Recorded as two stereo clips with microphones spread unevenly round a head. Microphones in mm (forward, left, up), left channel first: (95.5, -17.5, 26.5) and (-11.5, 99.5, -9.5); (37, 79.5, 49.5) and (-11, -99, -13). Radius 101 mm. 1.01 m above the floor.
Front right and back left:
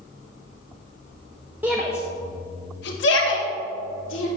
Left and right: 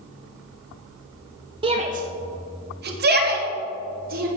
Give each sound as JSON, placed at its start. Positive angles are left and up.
{"t": 1.6, "sound": "a shout", "azimuth_deg": -155, "distance_m": 0.9}